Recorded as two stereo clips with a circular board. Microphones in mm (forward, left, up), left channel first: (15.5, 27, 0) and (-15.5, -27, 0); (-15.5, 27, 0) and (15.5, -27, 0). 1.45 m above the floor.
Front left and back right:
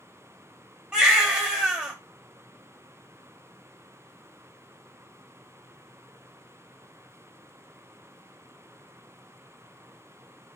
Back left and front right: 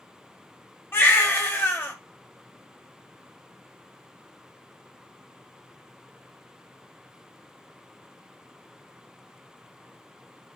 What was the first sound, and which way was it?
A baby crying, 165° left.